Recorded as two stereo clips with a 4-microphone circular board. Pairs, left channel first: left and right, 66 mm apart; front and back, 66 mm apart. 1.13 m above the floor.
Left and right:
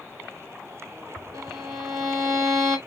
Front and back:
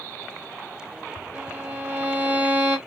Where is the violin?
110° right, 2 m.